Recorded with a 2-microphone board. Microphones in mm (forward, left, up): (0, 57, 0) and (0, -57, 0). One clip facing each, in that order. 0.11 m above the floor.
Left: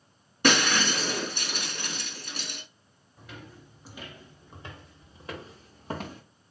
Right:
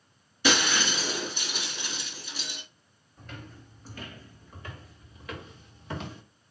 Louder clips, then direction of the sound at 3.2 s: Right 1 dB; 5° left (ahead or behind).